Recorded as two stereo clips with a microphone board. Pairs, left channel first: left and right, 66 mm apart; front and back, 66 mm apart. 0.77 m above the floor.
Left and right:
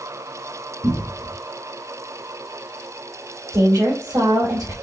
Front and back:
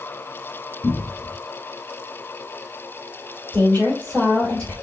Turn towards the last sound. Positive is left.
turn(degrees=-75)